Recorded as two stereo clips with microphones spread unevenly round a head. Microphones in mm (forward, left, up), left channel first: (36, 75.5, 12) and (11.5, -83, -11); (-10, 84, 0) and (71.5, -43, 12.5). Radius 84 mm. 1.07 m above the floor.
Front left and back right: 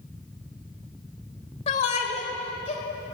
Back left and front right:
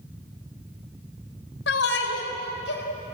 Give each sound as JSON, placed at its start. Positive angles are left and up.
{"t": 1.7, "sound": "a shout", "azimuth_deg": 135, "distance_m": 3.5}